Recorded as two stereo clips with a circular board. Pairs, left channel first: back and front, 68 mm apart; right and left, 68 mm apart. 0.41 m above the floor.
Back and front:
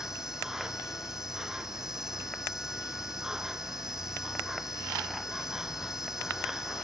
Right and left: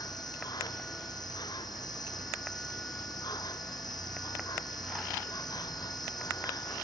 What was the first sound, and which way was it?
An insect, 85° right.